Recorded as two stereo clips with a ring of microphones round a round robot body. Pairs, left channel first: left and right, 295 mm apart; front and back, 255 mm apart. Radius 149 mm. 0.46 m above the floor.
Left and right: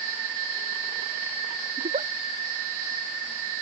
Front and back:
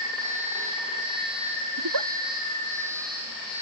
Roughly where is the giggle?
Behind.